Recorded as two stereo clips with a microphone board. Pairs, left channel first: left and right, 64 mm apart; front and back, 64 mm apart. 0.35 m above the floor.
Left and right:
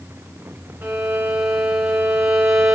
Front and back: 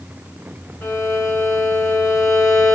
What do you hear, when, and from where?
0.8 s a violin: 35° right, 0.7 m